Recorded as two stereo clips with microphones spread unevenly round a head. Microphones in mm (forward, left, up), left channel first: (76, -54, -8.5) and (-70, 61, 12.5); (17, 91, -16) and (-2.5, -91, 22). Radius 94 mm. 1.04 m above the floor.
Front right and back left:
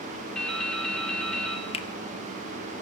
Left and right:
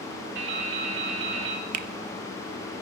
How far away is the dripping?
About 2 m.